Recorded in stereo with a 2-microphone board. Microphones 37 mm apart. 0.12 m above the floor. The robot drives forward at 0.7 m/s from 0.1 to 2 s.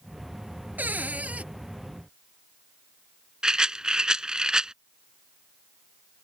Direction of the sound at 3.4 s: 20° right (ahead or behind).